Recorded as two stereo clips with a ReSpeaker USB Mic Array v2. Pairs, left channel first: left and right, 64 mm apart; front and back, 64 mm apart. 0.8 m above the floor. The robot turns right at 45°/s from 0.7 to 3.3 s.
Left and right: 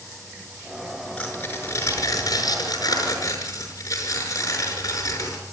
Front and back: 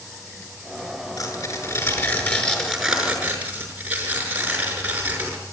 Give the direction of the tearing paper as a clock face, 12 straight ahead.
11 o'clock.